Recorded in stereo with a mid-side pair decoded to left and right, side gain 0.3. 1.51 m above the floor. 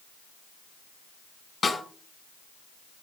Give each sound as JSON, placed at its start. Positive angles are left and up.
{"t": 1.6, "sound": "a snare drum", "azimuth_deg": 55, "distance_m": 4.0}